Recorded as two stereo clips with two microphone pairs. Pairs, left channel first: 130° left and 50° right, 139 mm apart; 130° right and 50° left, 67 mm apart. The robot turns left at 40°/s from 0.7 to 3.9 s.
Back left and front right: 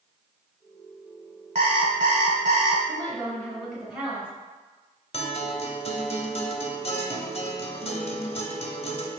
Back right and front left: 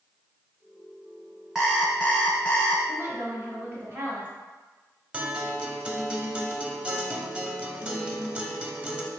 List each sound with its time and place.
1.6 s an alarm clock: 30° right, 0.9 m; by 2.8 s 80° right, 0.9 m
2.9 s a woman speaking: 70° left, 1.2 m; by 4.3 s 25° left, 1.2 m
5.1 s a guitar: 120° left, 0.6 m